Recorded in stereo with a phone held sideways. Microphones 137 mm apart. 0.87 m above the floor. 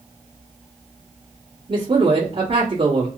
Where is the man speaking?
40° right (ahead or behind), 1.2 m.